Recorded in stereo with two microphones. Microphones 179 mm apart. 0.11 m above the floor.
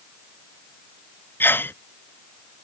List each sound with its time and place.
1.4 s a sneeze: 10° left (ahead or behind)